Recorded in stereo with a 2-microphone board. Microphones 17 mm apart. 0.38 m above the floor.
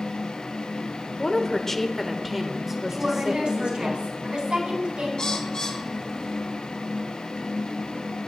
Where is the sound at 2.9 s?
65° right (ahead or behind), 3.5 m.